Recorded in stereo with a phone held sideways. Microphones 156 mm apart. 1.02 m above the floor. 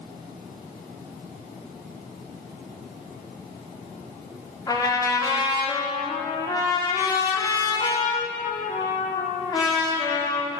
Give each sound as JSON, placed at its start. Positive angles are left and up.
{"t": 4.7, "sound": "a trumpet", "side_deg": 25, "distance_m": 2.5}